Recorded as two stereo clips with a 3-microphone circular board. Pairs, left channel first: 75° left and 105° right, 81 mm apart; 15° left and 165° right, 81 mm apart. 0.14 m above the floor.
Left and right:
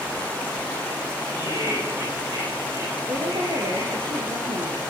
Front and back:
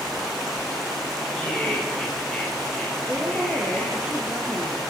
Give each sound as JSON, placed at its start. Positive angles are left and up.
{"t": 1.3, "sound": "laughter", "azimuth_deg": -65, "distance_m": 9.5}
{"t": 3.1, "sound": "a woman speaking", "azimuth_deg": -95, "distance_m": 3.5}